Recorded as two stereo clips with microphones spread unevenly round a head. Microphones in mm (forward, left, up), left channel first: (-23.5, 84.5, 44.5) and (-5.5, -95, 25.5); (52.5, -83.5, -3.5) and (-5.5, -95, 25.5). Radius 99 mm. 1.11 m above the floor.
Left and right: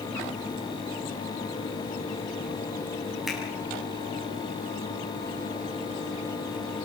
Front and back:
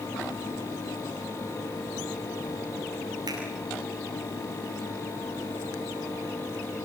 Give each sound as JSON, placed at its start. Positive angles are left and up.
{"t": 3.3, "sound": "a finger snap", "azimuth_deg": -175, "distance_m": 8.0}